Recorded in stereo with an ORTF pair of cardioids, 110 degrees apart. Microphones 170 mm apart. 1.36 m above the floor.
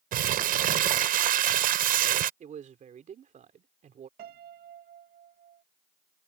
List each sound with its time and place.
0.1 s crumpling: 55° right
2.4 s a man speaking: 45° right
4.2 s a piano: 65° right